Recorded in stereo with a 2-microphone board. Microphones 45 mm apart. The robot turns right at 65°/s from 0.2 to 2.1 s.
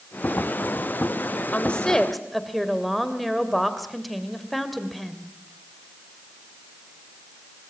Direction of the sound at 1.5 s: 140° left.